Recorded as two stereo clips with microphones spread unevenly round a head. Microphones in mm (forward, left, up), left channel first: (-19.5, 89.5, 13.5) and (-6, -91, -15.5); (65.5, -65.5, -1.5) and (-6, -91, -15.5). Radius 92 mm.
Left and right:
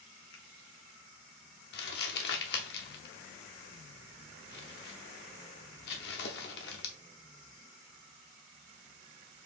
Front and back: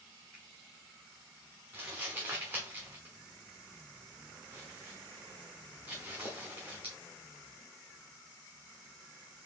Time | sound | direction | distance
0.3 | a finger snap | 105° left | 1.5 m
1.7 | crumpling | 120° left | 1.0 m